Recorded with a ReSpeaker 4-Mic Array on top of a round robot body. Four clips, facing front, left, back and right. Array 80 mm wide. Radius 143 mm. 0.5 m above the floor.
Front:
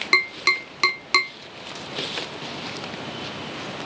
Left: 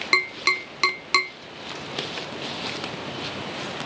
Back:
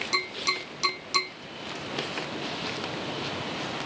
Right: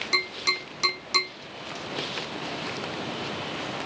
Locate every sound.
0.1 s tapping: 45° left, 1.0 m